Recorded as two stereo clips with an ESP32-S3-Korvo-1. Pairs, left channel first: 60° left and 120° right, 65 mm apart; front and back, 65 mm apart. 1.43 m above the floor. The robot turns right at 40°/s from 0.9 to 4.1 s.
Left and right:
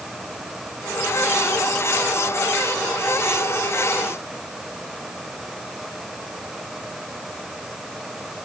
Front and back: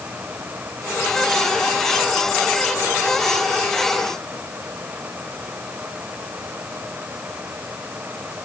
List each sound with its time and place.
Only background noise.